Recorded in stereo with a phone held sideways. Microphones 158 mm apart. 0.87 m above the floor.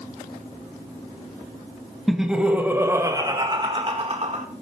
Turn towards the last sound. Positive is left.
turn(degrees=-50)  # may be behind; listen again after turning